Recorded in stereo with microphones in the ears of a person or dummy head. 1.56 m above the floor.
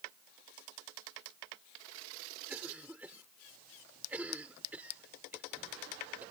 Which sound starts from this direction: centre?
A cough, at 2.5 s.